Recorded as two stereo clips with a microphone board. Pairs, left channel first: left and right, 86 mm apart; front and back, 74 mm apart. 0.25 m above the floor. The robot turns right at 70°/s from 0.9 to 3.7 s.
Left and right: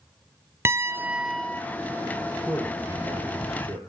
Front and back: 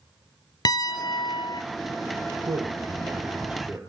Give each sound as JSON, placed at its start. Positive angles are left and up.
{"t": 0.7, "sound": "a piano", "azimuth_deg": -30, "distance_m": 0.8}
{"t": 2.4, "sound": "a man speaking", "azimuth_deg": 180, "distance_m": 7.0}